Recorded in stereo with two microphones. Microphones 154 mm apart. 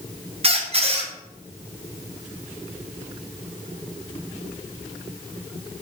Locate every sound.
0.4 s a squeak: 40° right (ahead or behind), 0.7 m